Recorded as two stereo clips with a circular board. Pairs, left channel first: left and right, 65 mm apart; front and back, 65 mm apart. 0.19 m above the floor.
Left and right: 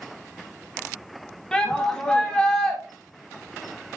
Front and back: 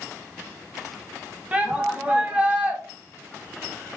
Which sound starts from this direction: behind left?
A shout, at 1.5 s.